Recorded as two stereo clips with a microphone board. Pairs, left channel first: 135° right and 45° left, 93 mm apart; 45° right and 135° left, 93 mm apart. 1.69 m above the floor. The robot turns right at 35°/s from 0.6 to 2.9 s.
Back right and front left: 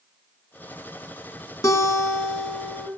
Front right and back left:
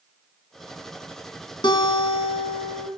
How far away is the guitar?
About 2.0 m.